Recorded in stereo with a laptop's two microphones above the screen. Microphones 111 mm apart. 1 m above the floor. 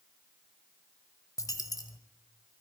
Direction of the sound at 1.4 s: 35° left (ahead or behind).